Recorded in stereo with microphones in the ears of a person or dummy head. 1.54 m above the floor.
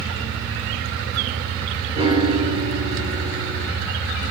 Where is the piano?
30° right (ahead or behind), 3.5 m.